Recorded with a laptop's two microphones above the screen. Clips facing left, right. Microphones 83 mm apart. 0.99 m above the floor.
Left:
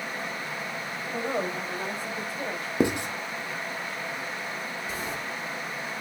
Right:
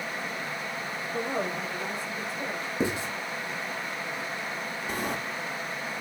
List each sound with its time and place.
1.1 s a woman speaking: 65° left (ahead or behind), 5.5 m; by 2.7 s 50° left (ahead or behind), 5 m
2.8 s writing: 65° left (ahead or behind), 1.2 m
4.9 s a sliding door: 55° right (ahead or behind), 1.6 m